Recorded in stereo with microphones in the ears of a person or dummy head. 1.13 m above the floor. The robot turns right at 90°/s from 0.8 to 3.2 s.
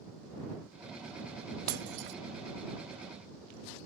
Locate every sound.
1.7 s breaking glass: 50° right (ahead or behind); by 2.2 s 55° right (ahead or behind)